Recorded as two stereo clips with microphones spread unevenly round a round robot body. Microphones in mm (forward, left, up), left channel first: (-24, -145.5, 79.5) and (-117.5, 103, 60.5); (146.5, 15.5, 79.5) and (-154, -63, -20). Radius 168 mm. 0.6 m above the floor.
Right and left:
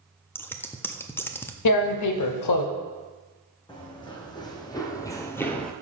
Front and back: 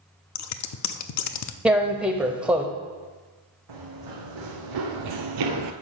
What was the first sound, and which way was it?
Scissors, 10° left.